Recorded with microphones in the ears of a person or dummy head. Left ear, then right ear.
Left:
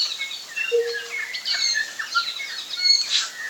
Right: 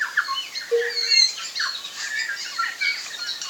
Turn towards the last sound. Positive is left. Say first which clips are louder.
# right 1 dB
turn(degrees=-70)  # may be behind; listen again after turning